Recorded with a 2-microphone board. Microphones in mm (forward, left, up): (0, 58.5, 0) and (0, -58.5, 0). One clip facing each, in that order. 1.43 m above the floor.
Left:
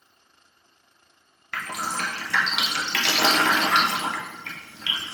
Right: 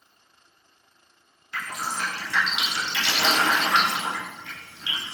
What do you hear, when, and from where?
1.5 s dripping: 65° left (ahead or behind), 0.6 m